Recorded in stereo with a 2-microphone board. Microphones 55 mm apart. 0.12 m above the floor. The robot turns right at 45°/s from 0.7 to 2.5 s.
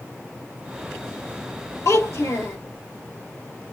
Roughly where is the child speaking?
Left.